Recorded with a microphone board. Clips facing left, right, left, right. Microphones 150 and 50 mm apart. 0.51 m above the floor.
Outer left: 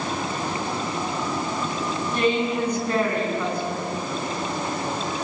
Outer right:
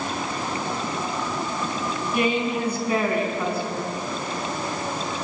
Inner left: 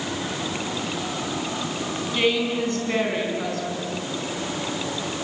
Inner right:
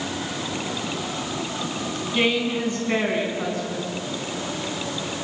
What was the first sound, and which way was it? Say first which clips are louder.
A woman speaking: outer left 1 dB, even; 10° right (ahead or behind).